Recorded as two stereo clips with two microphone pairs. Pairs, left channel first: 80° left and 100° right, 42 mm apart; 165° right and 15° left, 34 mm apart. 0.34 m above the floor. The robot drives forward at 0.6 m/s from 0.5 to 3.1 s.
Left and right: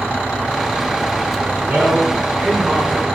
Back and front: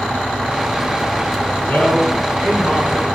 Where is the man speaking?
155° right, 3.5 m; by 3.1 s 160° right, 4 m.